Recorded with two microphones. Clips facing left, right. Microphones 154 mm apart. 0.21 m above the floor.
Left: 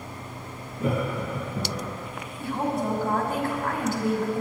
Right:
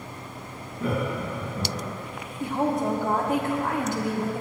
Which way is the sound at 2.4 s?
20° right (ahead or behind).